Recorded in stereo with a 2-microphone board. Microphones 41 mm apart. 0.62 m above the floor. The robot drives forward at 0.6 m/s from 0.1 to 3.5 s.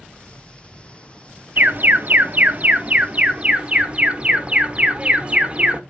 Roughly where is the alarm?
Right.